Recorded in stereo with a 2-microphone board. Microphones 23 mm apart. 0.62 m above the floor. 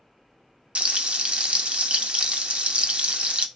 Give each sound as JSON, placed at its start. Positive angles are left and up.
{"t": 0.8, "sound": "frying", "side_deg": -60, "distance_m": 0.5}